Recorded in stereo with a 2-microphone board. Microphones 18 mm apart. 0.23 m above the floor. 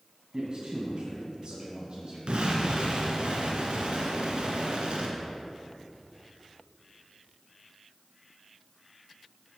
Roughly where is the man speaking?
Right.